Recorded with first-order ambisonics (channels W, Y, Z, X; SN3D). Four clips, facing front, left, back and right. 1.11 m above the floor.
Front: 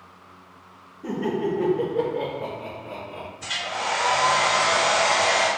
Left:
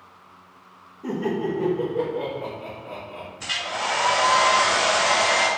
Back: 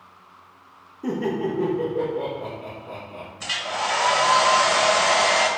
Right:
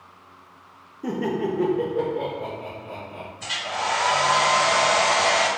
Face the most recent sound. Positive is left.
turn(degrees=150)